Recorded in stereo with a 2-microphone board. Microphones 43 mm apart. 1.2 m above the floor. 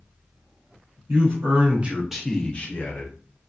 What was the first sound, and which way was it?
A man speaking, 55° right (ahead or behind).